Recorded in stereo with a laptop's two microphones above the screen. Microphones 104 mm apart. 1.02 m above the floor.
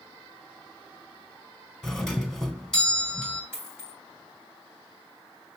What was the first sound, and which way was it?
A doorbell, 5° left (ahead or behind).